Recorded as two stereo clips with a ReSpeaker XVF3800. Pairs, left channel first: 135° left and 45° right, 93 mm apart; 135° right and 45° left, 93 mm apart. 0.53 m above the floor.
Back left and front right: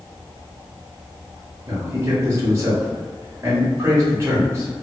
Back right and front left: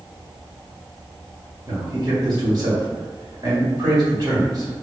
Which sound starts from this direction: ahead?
A man speaking, at 1.7 s.